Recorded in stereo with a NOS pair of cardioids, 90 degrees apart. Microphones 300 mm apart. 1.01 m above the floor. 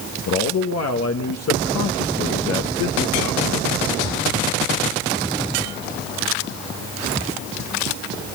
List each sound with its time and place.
0.3 s a man speaking: 60° left, 1.1 m